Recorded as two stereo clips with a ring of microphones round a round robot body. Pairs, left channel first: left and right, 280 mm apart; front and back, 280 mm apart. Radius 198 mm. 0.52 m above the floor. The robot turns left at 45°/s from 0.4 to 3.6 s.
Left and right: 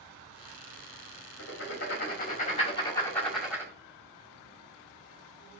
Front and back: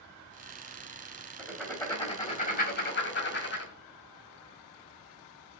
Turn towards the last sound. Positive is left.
turn(degrees=-10)